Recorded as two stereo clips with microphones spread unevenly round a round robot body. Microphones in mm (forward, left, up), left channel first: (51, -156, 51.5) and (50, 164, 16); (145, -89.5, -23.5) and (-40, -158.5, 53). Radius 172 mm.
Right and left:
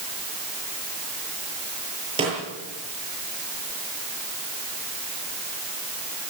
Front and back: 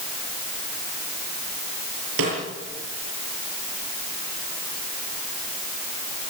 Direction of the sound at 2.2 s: 165° left.